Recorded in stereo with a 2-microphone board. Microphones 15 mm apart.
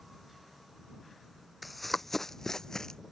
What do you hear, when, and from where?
1.6 s running footsteps: 5° right (ahead or behind); by 3.0 s 45° left (ahead or behind)